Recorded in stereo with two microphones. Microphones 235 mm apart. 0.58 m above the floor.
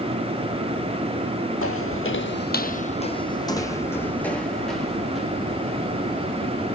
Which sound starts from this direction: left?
Footsteps, at 1.6 s.